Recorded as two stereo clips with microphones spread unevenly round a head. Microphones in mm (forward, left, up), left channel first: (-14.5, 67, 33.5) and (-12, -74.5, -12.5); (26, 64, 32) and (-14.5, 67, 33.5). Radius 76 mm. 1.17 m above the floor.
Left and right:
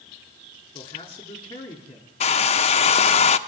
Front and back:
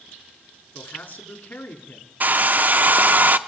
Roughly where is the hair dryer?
Behind left.